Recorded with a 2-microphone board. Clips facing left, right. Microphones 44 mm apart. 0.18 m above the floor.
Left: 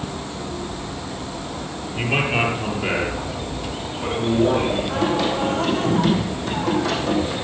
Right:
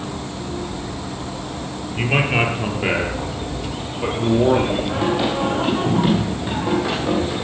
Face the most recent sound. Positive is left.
turn(degrees=-20)  # may be behind; listen again after turning